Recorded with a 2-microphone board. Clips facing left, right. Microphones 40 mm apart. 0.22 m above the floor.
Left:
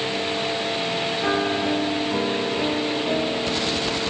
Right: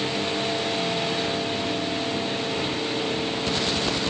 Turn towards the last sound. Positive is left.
turn(degrees=55)  # may be behind; listen again after turning